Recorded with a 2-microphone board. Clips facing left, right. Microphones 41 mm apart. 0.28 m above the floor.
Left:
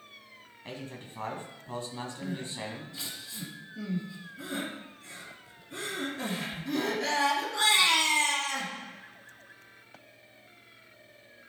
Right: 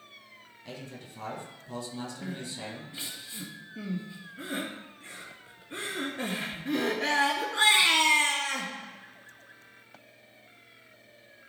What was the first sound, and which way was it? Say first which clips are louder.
A man speaking: left 2 dB; 35° left (ahead or behind).